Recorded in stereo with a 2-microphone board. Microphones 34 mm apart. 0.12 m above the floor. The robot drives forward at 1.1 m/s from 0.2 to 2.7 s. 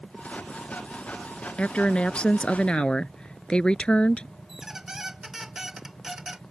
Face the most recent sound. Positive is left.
turn(degrees=-15)  # may be behind; listen again after turning